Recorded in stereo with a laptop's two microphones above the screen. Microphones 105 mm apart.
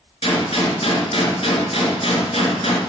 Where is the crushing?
I don't hear crushing.